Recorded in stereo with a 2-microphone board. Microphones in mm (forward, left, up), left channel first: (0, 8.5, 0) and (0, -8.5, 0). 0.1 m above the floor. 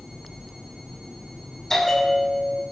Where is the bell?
20° left (ahead or behind), 3 m.